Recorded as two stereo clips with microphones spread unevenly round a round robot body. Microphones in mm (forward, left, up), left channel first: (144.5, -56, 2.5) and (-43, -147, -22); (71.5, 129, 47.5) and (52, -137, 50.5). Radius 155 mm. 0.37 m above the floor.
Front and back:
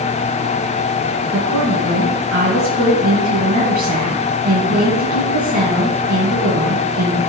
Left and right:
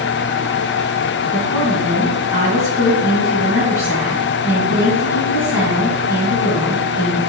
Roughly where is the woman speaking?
Behind.